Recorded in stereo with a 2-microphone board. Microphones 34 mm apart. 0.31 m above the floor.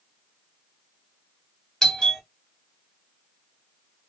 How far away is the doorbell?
About 1.4 m.